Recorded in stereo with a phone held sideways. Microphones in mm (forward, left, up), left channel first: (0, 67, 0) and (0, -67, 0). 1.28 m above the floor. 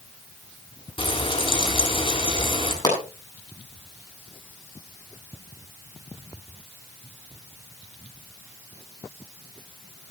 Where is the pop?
35° left (ahead or behind), 8 m.